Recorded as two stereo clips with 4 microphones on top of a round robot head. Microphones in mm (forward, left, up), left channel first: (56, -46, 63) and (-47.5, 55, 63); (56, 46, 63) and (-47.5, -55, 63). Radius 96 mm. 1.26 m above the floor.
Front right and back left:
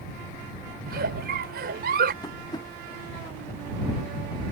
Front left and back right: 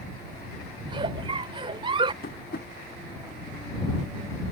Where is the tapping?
20° left.